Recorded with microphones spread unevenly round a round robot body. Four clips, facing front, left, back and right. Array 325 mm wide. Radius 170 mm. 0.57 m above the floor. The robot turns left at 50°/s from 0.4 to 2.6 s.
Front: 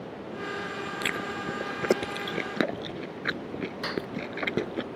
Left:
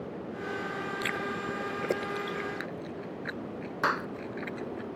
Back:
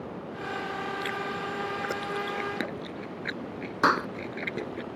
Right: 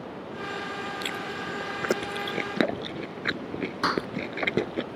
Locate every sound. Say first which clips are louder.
1.0 s chewing: even, even; 20° left; by 4.8 s 60° right
3.8 s a clap: right 2 dB, back 12 dB; 170° right